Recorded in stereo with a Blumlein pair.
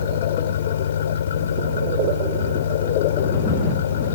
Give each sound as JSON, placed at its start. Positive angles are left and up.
{"t": 0.0, "sound": "an engine running", "azimuth_deg": 65}